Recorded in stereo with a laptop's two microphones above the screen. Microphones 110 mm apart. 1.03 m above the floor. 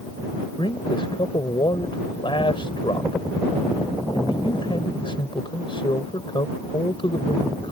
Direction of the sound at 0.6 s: 50° left (ahead or behind).